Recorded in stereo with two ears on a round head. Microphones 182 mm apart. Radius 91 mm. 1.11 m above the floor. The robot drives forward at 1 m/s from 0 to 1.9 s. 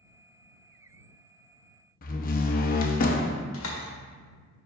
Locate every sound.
2.0 s a door slam: 45° left (ahead or behind), 0.7 m
3.5 s a door slam: 75° left (ahead or behind), 1.7 m